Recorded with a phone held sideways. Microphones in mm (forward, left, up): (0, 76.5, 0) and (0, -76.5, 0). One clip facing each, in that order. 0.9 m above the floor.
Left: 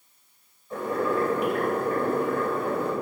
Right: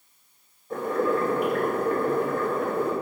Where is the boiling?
55° right (ahead or behind), 3 m.